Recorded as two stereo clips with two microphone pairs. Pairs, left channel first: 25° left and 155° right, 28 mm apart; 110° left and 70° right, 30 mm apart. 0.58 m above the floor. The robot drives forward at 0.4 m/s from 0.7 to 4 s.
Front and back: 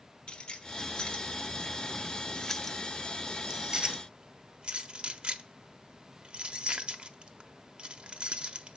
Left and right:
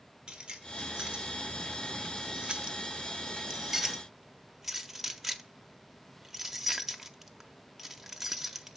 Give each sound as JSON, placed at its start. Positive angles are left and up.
{"t": 0.3, "sound": "keys jangling", "azimuth_deg": -10, "distance_m": 1.1}